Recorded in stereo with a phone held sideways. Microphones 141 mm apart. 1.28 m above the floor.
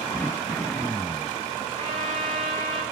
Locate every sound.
0.1 s throat clearing: 15° left (ahead or behind), 0.7 m
1.8 s a trumpet: 40° right (ahead or behind), 5.5 m